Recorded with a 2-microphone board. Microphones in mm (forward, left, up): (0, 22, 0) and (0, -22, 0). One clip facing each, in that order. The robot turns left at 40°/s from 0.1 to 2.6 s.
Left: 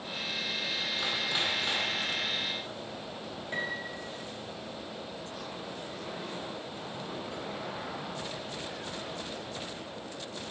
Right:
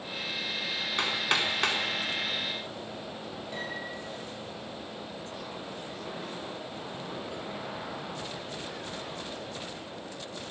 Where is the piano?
45° left (ahead or behind), 7.5 m.